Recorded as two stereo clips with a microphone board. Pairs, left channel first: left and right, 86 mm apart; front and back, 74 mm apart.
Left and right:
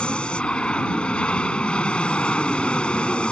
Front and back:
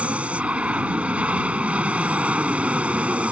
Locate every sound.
0.0 s an aircraft: 145° left